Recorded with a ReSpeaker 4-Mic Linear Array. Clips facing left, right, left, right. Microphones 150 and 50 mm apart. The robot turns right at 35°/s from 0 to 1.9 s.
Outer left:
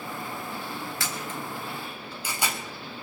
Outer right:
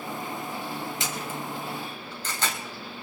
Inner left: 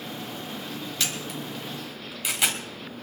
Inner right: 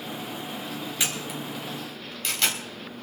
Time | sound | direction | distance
1.0 | a camera shutter | 20° right (ahead or behind) | 3 m